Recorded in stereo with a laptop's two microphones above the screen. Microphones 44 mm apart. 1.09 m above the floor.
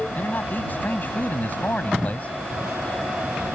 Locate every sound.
0.1 s a man speaking: 50° left (ahead or behind); by 2.3 s 35° left (ahead or behind)